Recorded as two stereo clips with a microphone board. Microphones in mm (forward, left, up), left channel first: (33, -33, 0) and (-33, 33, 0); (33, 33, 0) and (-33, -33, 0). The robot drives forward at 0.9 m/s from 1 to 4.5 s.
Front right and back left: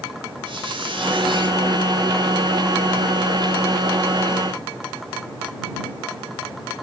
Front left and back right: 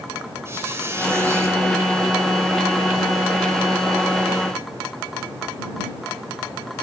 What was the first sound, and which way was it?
A squeak, 165° left.